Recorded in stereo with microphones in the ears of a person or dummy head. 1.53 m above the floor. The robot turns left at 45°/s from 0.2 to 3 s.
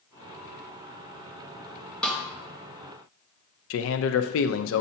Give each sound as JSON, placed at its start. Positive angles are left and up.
{"t": 2.0, "sound": "a snare drum", "side_deg": 10, "distance_m": 1.0}
{"t": 3.7, "sound": "a man speaking", "side_deg": 70, "distance_m": 0.6}